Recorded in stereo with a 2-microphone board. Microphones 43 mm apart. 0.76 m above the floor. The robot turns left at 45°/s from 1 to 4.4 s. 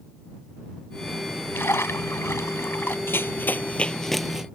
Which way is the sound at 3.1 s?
60° left (ahead or behind).